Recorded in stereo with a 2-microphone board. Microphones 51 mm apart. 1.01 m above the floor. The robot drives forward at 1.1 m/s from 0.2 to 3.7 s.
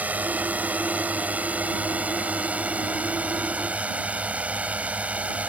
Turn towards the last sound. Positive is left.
turn(degrees=-30)  # may be behind; listen again after turning